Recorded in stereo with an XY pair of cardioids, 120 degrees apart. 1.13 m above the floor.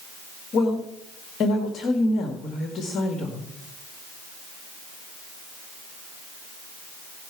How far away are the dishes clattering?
No dishes clattering in this recording.